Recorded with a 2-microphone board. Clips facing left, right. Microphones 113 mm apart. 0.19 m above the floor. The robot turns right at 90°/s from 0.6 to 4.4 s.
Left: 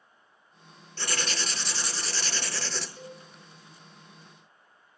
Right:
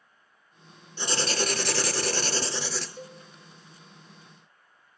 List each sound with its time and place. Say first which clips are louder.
1.0 s writing: right 5 dB; 165° right, 0.5 m; by 2.9 s 5° left, 0.5 m
3.0 s a cowbell: right 1 dB; 5° right (ahead or behind), 1.3 m; by 3.2 s 15° right (ahead or behind), 1.3 m